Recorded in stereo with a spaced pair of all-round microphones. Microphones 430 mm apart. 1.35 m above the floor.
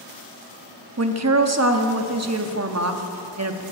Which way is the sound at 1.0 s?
35° right (ahead or behind).